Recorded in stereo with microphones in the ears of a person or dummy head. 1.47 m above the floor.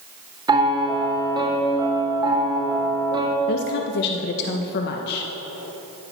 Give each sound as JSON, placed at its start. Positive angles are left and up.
{"t": 0.5, "sound": "a piano", "side_deg": -20, "distance_m": 1.4}
{"t": 3.5, "sound": "a woman speaking", "side_deg": 60, "distance_m": 0.5}